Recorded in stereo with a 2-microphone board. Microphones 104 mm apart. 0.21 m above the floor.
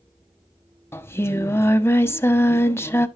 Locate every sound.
0.9 s singing: 25° left (ahead or behind), 0.5 m